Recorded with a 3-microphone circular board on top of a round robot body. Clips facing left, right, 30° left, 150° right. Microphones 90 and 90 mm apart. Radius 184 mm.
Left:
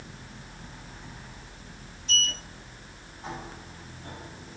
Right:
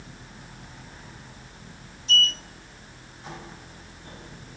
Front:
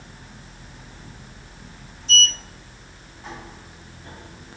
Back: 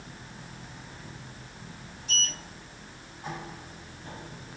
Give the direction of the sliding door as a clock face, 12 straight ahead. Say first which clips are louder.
Right 5 dB, front 11 dB; 8 o'clock.